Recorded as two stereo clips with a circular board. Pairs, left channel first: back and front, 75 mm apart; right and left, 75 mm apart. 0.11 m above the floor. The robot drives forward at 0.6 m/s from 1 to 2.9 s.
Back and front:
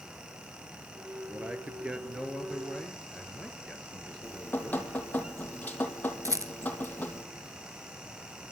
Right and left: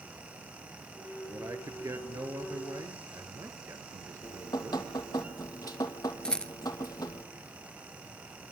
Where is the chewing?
I don't hear chewing.